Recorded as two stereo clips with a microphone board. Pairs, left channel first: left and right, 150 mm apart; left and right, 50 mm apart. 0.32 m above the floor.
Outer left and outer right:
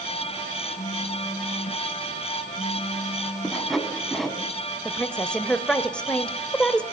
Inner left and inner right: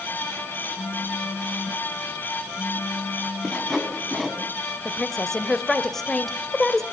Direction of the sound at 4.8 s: 5° left (ahead or behind).